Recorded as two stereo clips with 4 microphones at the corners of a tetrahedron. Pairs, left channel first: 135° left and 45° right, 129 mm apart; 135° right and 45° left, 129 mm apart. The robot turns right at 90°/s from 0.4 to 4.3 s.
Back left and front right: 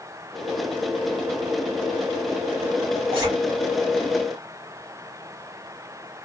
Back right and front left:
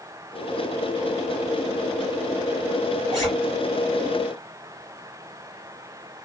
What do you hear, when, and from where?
3.1 s a zipper: 5° right, 3 m; by 3.3 s 10° left, 3 m